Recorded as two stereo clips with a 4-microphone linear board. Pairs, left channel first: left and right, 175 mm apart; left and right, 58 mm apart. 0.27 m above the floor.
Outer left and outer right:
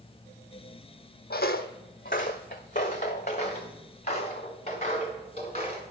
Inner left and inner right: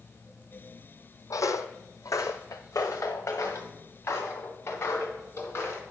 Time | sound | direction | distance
1.3 | footsteps | 65° left (ahead or behind) | 0.6 m